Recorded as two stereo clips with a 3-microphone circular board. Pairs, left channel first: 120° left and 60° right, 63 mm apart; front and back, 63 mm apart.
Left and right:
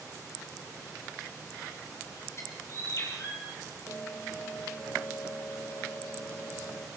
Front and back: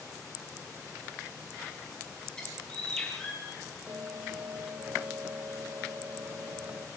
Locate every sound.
2.4 s a bird: 80° left, 9 m
3.9 s a bell: 160° left, 5.5 m